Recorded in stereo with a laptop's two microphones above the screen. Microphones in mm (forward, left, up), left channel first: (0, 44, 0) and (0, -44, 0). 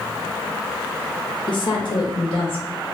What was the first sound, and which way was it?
A woman speaking, 60° left (ahead or behind).